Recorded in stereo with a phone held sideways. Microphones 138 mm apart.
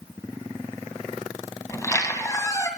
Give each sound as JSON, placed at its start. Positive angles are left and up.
{"t": 1.7, "sound": "a squeak", "side_deg": 25, "distance_m": 1.4}